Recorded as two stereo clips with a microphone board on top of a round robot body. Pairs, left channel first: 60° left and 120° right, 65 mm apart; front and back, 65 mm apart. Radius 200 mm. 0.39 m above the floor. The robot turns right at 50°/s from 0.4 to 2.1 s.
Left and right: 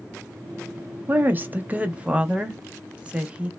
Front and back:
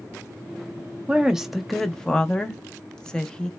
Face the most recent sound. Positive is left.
turn(degrees=-65)